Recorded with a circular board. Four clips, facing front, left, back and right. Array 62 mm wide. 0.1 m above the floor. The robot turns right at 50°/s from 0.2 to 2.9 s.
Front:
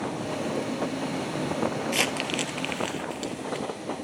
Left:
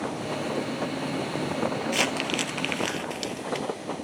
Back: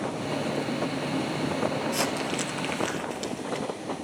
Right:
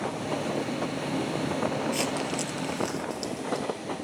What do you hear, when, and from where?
1.9 s crumpling: 35° left, 1.5 m; by 3.7 s 85° left, 1.5 m